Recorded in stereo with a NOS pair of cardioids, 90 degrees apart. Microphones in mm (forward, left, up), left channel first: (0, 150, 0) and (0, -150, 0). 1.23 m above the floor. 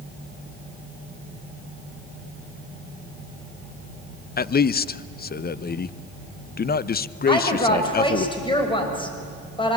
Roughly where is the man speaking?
Ahead left.